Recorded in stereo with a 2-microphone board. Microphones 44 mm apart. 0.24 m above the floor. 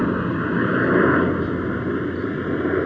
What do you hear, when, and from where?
0.0 s a helicopter: centre (ahead or behind); by 2.9 s 5° left (ahead or behind)